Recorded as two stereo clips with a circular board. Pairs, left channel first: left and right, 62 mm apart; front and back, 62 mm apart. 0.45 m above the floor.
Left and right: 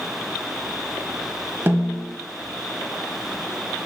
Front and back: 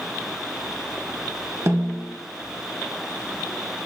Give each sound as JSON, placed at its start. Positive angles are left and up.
{"t": 1.7, "sound": "a snare drum", "azimuth_deg": -145, "distance_m": 1.3}